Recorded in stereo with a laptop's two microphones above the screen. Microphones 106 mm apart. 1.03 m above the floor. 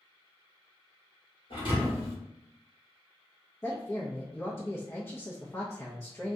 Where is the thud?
55° left (ahead or behind), 1.6 m.